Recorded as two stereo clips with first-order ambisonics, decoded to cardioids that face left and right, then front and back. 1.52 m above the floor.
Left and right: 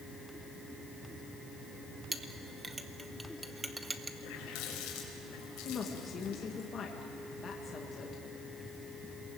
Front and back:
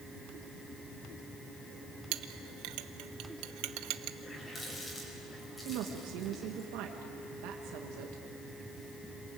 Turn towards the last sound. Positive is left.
turn(degrees=155)